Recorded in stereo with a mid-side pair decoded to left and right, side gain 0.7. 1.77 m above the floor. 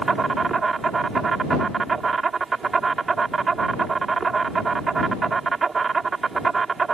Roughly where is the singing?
No singing in this recording.